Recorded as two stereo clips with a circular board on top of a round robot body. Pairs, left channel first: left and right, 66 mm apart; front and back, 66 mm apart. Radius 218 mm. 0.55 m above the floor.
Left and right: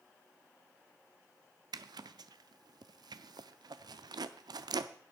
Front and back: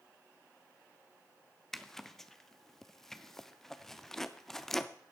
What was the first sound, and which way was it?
A zipper, 85° right.